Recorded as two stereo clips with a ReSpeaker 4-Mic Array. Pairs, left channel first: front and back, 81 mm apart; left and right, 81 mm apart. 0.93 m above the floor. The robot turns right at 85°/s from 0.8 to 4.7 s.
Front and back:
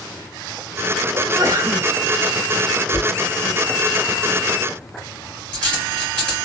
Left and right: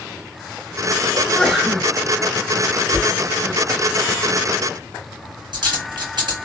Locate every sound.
1.1 s a sneeze: 145° left, 1.5 m; by 1.9 s 155° right, 1.5 m
2.9 s a dropped coin: 130° left, 2.5 m; by 6.5 s 80° right, 2.5 m